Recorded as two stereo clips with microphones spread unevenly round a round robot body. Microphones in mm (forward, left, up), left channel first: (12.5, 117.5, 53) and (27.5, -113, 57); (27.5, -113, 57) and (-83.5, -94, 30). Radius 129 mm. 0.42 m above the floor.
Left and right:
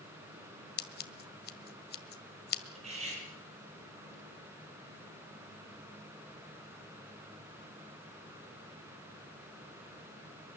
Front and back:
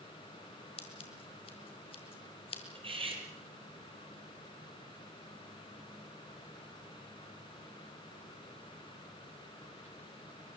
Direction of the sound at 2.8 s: 150° right.